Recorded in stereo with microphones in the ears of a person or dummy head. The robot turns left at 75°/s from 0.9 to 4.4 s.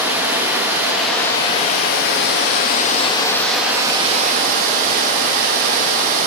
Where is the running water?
165° right, 0.9 m; by 6.3 s 65° right, 0.9 m.